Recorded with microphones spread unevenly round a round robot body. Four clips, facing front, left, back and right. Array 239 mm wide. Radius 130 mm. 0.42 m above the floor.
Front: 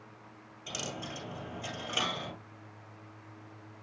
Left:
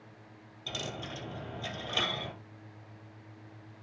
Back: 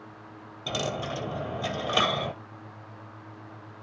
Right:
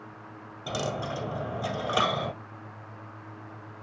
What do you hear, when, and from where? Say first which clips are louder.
0.7 s a dropped coin: right 9 dB, back 10 dB; 140° right, 1.6 m